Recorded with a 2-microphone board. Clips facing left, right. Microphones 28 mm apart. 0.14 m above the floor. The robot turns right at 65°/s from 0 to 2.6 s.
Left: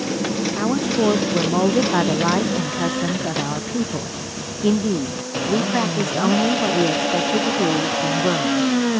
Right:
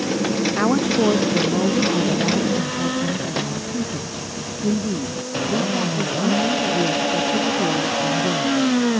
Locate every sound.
0.6 s a woman speaking: 25° right; by 8.7 s 105° left